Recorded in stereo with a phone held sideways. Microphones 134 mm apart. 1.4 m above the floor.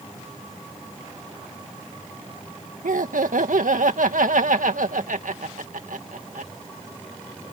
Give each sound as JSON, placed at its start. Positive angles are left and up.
{"t": 2.8, "sound": "laughter", "side_deg": -80}